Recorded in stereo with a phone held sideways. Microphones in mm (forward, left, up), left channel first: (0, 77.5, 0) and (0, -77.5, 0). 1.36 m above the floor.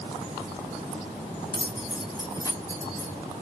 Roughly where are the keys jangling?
Left.